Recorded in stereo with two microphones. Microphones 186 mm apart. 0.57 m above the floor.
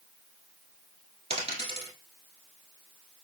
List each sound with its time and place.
1.3 s a dropped coin: 35° right (ahead or behind), 1.0 m